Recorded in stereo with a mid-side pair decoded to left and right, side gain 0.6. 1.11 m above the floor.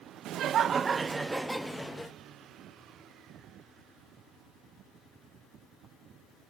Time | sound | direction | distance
0.2 | laughter | 60° right | 0.7 m